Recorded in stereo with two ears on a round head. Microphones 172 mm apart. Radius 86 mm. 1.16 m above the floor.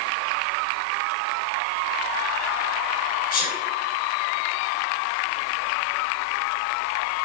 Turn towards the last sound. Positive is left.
turn(degrees=45)  # may be behind; listen again after turning